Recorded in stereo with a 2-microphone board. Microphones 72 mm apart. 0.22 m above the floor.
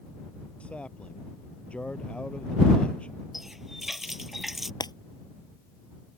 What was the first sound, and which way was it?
A man speaking, 15° left (ahead or behind).